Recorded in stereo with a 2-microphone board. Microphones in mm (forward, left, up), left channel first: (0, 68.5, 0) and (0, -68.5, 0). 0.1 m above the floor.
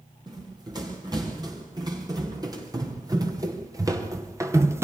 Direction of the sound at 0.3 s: 30° right (ahead or behind).